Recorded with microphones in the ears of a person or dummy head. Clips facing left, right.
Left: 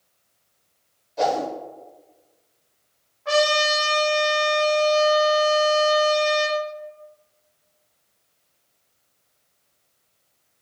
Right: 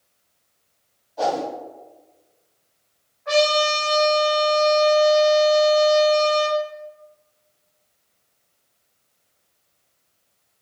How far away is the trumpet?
About 1.8 m.